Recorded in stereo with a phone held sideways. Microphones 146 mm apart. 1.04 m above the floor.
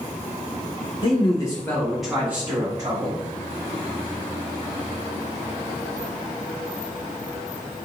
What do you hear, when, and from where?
1.0 s a man speaking: 40° left (ahead or behind), 1.1 m; by 3.2 s 30° right (ahead or behind), 1.5 m